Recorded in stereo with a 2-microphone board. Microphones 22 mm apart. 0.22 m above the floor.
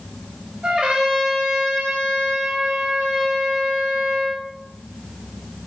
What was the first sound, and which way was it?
A trumpet, 70° right (ahead or behind).